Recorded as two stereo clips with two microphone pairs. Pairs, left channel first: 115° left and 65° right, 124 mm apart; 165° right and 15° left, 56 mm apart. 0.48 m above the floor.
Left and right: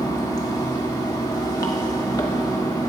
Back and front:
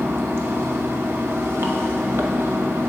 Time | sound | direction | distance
0.0 | running water | 55° left | 0.8 m